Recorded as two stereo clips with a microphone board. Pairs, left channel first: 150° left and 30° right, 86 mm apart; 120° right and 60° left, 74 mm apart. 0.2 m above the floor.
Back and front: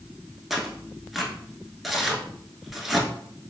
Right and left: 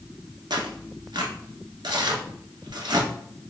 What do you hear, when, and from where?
0.5 s tearing paper: 55° left, 0.8 m